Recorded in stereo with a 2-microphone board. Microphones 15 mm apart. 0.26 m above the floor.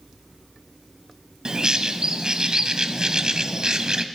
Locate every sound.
1.4 s a bird: 45° right (ahead or behind), 0.7 m